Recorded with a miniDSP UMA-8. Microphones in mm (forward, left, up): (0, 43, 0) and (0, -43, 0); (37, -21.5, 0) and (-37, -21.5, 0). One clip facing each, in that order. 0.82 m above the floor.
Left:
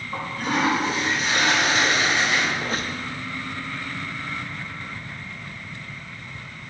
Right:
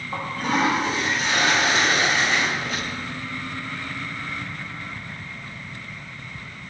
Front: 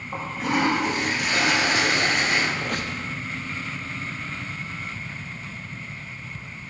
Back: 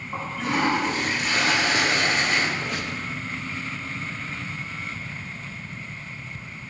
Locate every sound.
0.1 s a toilet flushing: 35° right, 3 m
2.6 s a squeak: 40° left, 0.6 m